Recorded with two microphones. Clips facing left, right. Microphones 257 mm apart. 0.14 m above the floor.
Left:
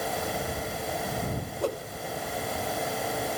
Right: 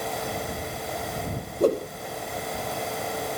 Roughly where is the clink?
I don't hear a clink.